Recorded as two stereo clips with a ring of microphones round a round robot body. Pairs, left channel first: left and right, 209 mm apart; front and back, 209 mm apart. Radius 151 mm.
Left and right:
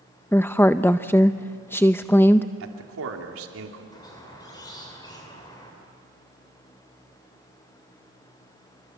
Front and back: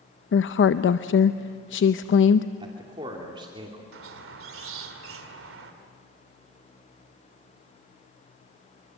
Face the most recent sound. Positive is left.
turn(degrees=165)